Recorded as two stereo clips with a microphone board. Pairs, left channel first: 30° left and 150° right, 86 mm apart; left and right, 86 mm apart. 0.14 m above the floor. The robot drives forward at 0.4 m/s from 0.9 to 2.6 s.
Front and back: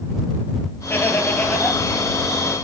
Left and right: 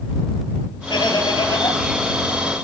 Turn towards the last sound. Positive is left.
turn(degrees=110)